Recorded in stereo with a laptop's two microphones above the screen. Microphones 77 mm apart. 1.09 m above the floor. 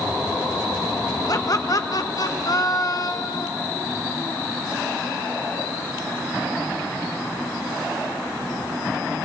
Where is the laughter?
50° left (ahead or behind), 1.0 m.